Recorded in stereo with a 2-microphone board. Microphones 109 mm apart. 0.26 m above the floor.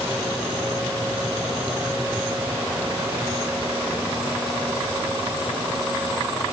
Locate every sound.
Only background noise.